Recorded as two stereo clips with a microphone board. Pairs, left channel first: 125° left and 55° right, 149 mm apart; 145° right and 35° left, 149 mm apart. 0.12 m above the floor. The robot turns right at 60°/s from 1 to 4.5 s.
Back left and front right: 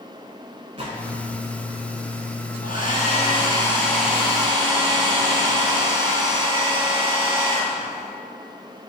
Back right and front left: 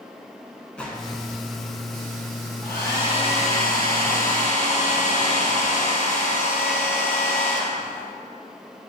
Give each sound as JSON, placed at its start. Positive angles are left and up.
{"t": 0.8, "sound": "a gunshot", "azimuth_deg": -65, "distance_m": 1.1}
{"t": 2.6, "sound": "a hair dryer", "azimuth_deg": 130, "distance_m": 2.5}